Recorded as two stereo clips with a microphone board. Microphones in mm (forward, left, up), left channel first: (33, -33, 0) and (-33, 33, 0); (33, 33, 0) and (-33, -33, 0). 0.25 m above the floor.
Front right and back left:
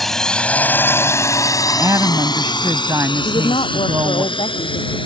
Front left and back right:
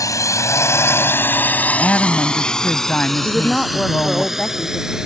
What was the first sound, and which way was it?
A drone, 40° left.